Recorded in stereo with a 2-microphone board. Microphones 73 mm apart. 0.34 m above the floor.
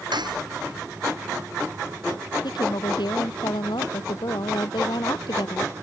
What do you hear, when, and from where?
0.1 s cutlery clinking: 85° right
2.4 s a woman speaking: 85° left